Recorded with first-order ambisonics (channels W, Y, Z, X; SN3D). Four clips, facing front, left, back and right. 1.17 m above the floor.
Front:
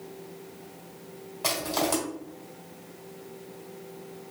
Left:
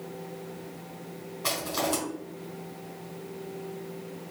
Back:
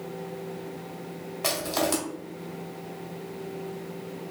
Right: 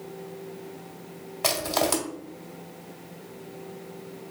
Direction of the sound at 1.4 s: 105° right.